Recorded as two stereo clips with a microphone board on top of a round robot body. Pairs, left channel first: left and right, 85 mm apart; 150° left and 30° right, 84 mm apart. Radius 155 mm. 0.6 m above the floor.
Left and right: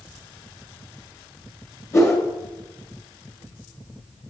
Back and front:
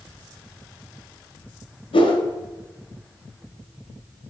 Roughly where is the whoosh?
Behind left.